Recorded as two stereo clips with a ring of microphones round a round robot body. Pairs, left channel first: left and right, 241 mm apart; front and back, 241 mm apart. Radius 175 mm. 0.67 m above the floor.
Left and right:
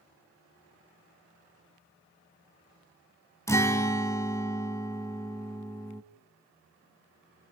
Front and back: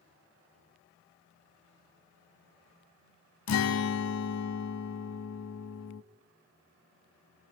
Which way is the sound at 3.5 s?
10° left.